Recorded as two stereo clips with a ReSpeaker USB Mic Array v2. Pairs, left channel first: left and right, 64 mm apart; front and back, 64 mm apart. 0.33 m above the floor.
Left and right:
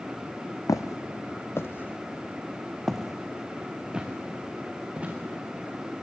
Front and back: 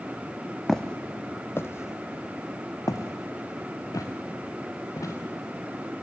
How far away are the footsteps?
About 1.0 m.